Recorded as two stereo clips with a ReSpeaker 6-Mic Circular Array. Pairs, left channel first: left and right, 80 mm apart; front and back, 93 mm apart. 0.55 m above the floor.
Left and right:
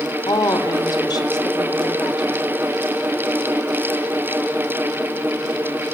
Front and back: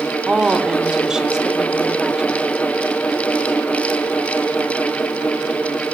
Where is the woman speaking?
100° left, 1.5 m.